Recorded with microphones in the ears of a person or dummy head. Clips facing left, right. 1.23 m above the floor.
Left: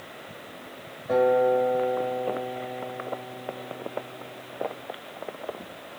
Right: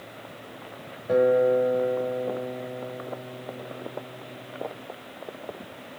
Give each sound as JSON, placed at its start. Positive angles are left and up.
{"t": 1.1, "sound": "a guitar", "side_deg": -30, "distance_m": 1.2}